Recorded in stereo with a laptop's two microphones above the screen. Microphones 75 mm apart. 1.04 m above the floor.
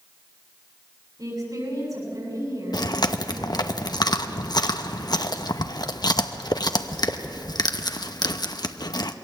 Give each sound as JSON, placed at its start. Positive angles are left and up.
{"t": 1.2, "sound": "a woman speaking", "side_deg": -65, "distance_m": 7.5}
{"t": 2.7, "sound": "chewing", "side_deg": 70, "distance_m": 0.8}